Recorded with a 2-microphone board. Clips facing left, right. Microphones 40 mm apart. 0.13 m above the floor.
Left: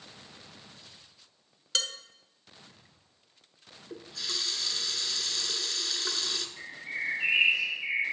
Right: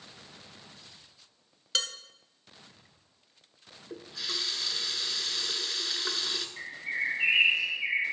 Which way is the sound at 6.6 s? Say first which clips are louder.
Right 3 dB; 40° right (ahead or behind).